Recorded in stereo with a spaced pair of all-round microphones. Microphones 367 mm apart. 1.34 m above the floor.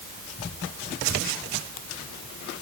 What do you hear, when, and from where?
Only background noise.